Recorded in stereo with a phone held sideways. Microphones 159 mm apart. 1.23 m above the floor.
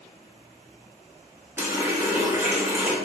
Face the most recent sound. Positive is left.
turn(degrees=-15)  # may be behind; listen again after turning